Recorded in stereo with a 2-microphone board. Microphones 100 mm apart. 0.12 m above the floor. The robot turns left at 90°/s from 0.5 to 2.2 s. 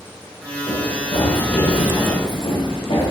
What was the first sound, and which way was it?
Running footsteps, 50° left (ahead or behind).